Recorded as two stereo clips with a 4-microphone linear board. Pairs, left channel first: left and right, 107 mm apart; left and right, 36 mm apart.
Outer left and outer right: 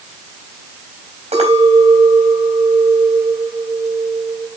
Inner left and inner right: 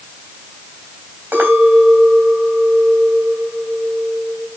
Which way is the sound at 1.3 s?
85° right.